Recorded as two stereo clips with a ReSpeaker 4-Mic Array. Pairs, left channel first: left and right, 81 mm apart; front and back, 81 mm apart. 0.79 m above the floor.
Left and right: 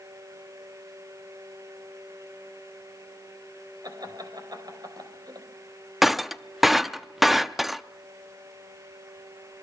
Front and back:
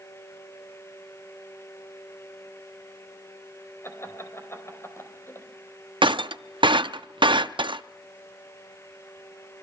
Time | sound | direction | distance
3.8 | laughter | 55° right | 5 m
6.0 | breaking glass | straight behind | 0.5 m